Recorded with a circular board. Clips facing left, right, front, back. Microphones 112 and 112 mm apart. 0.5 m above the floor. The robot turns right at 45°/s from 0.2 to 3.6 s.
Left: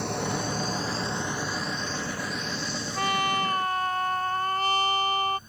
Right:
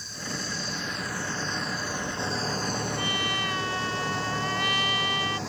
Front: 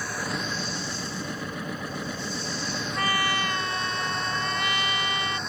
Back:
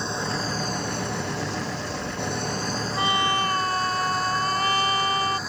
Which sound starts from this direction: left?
A trumpet, at 3.0 s.